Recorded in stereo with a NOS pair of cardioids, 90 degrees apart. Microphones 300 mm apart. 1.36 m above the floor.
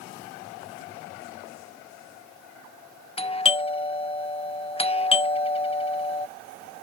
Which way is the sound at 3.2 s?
20° left.